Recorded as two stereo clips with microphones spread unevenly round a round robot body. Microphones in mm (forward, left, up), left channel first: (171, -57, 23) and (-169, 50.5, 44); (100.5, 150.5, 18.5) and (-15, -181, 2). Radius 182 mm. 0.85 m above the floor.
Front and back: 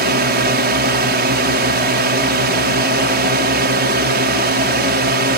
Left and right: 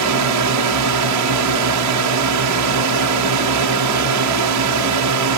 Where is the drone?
140° right.